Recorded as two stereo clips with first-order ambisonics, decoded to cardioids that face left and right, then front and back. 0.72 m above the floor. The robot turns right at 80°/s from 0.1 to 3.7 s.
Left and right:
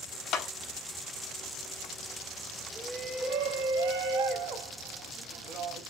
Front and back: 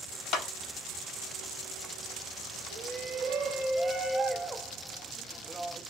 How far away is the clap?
About 0.8 m.